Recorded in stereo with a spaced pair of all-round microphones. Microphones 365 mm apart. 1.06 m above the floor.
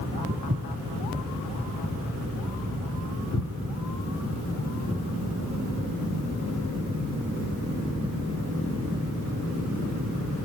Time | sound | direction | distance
0.3 | footsteps | 25° right (ahead or behind) | 1.4 m